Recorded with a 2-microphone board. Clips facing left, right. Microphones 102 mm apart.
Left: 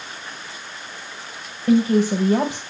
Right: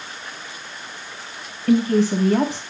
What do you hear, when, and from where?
1.7 s a woman speaking: 20° left (ahead or behind), 1.9 m